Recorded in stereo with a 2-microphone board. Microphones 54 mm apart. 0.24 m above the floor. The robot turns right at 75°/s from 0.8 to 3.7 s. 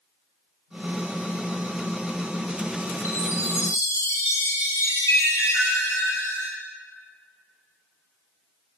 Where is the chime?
60° left, 2.5 m; by 6.5 s 110° left, 2.5 m.